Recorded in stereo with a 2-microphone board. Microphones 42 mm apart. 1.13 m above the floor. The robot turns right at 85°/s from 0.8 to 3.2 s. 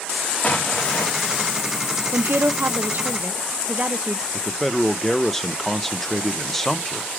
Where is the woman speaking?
125° right, 0.7 m; by 4.2 s 30° right, 0.7 m.